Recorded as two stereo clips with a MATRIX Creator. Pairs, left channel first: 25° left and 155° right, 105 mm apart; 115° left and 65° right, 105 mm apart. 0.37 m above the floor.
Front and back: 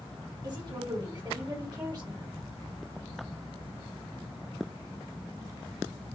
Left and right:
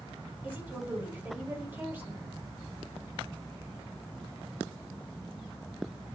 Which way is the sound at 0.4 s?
130° right.